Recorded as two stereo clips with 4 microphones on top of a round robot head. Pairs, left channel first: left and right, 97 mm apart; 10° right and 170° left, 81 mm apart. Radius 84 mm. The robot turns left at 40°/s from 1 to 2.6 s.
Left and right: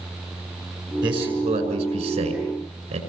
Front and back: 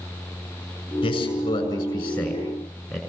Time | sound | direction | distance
1.0 | a man speaking | 40° right | 6 m